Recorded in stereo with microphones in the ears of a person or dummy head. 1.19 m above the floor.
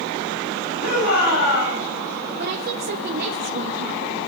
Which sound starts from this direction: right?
A woman speaking, at 2.4 s.